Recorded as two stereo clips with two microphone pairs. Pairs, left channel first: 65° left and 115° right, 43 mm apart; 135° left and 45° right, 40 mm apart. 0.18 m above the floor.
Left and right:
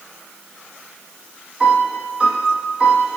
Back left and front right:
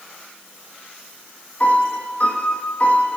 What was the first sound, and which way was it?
A piano, 175° right.